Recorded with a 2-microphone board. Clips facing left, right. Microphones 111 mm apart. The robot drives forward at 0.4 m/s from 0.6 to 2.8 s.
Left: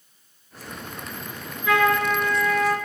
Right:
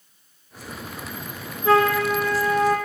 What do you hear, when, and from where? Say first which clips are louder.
1.6 s a flute: right 2 dB; 35° right (ahead or behind), 2 m; by 2.8 s 30° right (ahead or behind), 2.5 m